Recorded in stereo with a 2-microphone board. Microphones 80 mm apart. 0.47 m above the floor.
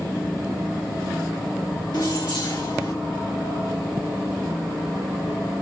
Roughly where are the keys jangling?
Left.